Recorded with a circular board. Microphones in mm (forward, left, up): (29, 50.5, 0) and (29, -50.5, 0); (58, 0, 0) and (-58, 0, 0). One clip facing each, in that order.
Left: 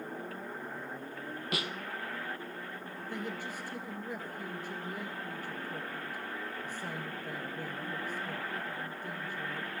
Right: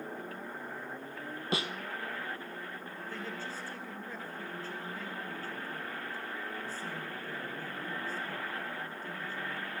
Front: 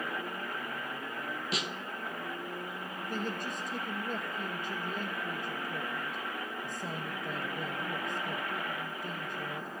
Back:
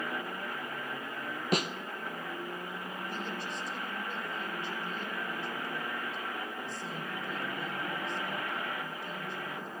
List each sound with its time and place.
1.5 s a snare drum: 150° right, 0.9 m
3.1 s a man speaking: 20° left, 1.8 m